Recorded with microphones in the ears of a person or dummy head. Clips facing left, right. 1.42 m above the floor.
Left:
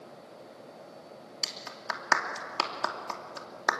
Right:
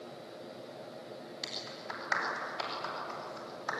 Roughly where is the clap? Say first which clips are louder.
Left 1 dB; left.